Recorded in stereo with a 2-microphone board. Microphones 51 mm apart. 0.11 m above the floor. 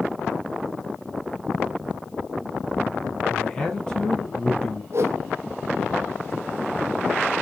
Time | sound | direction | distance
3.3 | a man speaking | 15° left (ahead or behind) | 3.5 m
4.9 | a whoosh | 60° right (ahead or behind) | 1.2 m